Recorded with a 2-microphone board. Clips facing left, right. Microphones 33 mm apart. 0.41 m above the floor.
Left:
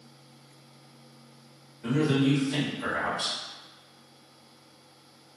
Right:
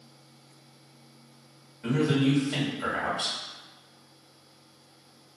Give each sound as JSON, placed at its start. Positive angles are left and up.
{"t": 1.8, "sound": "a man speaking", "side_deg": -15, "distance_m": 1.8}